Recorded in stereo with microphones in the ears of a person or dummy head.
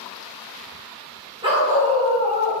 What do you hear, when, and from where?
1.4 s a dog barking: 30° right (ahead or behind), 3 m; by 2.6 s 35° right (ahead or behind), 4.5 m